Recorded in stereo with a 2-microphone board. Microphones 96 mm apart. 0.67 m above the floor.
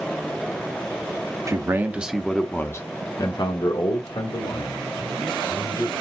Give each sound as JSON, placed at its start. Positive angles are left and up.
{"t": 1.5, "sound": "a man speaking", "side_deg": -35, "distance_m": 0.8}